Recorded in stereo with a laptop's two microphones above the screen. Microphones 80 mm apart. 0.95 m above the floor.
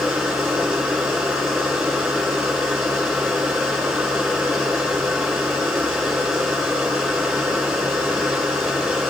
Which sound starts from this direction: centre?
A machine running, at 0.0 s.